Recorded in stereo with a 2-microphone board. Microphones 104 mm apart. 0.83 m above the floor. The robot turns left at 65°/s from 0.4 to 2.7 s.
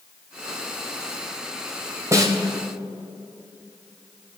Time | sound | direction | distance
2.1 | a snare drum | 30° right (ahead or behind) | 1.4 m